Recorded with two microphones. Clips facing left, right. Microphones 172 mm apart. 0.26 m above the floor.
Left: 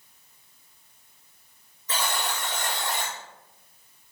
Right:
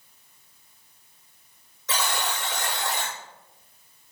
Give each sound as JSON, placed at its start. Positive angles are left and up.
{"t": 1.9, "sound": "a buzzer", "side_deg": -80, "distance_m": 5.0}